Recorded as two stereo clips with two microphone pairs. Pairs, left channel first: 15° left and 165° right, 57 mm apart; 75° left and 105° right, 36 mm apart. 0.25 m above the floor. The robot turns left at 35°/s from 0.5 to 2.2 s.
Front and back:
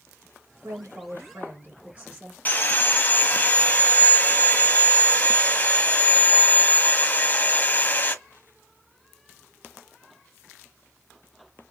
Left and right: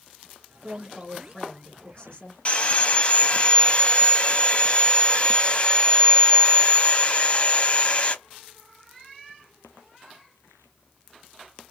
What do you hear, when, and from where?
0.6 s a woman speaking: 175° left, 2.5 m; by 2.4 s 120° left, 2.5 m
2.5 s sawing: 50° left, 1.0 m